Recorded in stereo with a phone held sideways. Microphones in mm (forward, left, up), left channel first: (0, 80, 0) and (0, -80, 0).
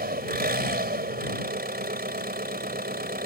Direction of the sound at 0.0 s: 75° right (ahead or behind).